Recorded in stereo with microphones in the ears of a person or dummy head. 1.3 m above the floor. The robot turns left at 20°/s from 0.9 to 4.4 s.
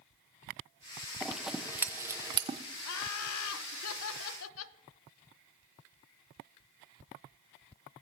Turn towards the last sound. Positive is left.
turn(degrees=75)